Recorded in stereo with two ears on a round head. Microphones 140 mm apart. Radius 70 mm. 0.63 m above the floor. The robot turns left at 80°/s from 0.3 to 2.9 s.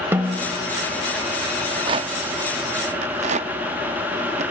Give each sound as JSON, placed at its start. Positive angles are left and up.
{"t": 0.1, "sound": "a snare drum", "side_deg": -15, "distance_m": 0.9}
{"t": 1.6, "sound": "a rattle", "side_deg": -15, "distance_m": 0.5}